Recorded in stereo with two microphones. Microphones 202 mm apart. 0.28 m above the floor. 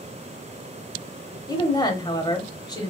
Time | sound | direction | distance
1.5 | a woman speaking | 20° left (ahead or behind) | 1.0 m